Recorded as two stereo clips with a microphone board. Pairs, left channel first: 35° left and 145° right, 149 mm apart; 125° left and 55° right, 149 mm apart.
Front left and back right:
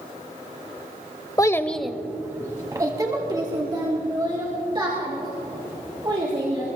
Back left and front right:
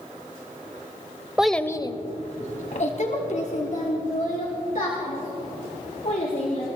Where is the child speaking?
20° left, 0.6 m; by 6.7 s 155° left, 4.5 m.